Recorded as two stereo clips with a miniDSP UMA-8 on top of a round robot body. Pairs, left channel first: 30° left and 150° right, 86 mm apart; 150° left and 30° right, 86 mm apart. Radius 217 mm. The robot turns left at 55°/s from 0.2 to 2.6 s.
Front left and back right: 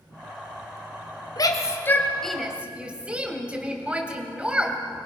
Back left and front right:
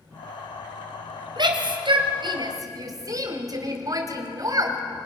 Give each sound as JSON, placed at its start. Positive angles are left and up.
{"t": 1.4, "sound": "a shout", "azimuth_deg": -5, "distance_m": 3.0}